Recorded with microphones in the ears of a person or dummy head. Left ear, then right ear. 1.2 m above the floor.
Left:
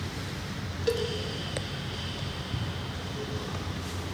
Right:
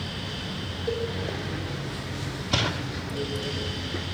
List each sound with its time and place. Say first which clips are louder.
0.9 s a cowbell: left 1 dB; 30° left (ahead or behind), 0.5 m